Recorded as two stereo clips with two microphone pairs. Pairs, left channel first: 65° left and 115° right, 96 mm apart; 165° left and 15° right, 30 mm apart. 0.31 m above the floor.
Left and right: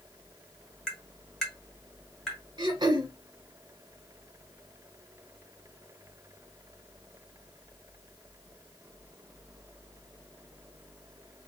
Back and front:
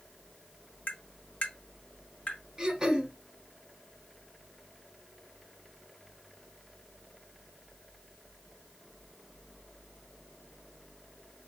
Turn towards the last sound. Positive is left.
turn(degrees=-80)